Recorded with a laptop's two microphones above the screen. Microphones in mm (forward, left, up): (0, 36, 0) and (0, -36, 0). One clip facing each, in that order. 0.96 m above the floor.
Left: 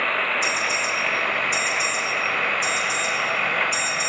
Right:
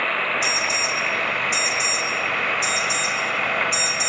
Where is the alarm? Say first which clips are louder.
Even; 80° right, 2 m.